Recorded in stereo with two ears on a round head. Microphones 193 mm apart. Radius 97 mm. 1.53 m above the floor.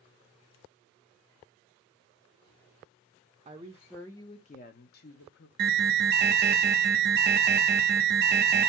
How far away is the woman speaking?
About 0.5 m.